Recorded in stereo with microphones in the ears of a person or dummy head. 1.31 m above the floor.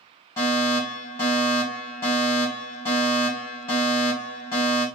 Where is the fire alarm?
20° left (ahead or behind), 1.6 m.